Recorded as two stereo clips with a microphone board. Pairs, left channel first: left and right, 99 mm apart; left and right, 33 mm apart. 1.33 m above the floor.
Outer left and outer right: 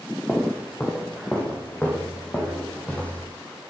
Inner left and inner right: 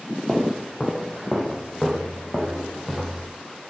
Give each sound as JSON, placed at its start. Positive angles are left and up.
{"t": 0.3, "sound": "footsteps", "side_deg": 20, "distance_m": 3.0}